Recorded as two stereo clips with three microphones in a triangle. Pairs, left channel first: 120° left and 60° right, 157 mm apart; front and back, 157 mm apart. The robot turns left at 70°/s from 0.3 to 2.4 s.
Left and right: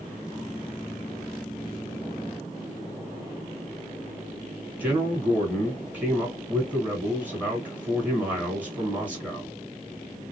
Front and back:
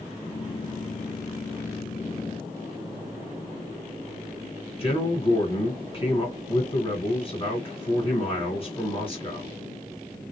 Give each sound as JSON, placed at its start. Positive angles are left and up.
{"t": 4.8, "sound": "a man speaking", "azimuth_deg": 15, "distance_m": 2.0}